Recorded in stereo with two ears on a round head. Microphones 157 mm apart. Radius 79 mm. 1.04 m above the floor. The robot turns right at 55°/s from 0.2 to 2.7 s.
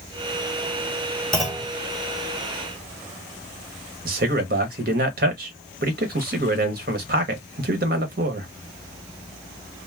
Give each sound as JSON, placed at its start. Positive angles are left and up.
{"t": 1.3, "sound": "a clunk", "side_deg": 0, "distance_m": 1.4}
{"t": 4.0, "sound": "a man speaking", "side_deg": -55, "distance_m": 0.8}